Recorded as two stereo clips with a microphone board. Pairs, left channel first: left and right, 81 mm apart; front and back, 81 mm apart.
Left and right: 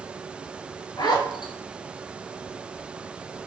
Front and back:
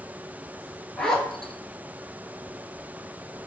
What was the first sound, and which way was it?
A zipper, 80° left.